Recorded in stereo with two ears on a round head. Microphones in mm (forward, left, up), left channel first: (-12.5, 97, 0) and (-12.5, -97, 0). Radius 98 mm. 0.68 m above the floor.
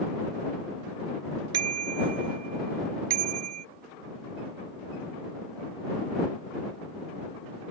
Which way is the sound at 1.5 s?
90° right.